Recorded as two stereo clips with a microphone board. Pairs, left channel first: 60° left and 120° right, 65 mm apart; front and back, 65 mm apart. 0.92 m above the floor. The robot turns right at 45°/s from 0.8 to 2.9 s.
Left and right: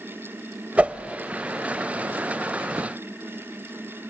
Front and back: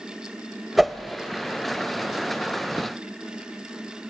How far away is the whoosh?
About 0.7 m.